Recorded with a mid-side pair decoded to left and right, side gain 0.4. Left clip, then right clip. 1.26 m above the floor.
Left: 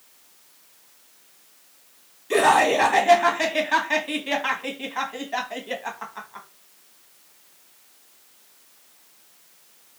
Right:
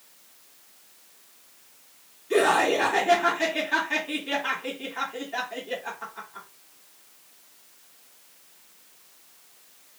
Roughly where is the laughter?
Left.